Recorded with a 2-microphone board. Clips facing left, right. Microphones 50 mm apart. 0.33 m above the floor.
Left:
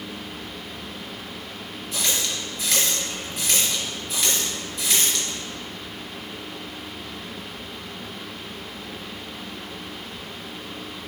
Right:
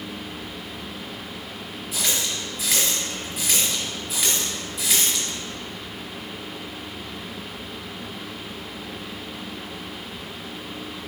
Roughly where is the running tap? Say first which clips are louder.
Even; centre.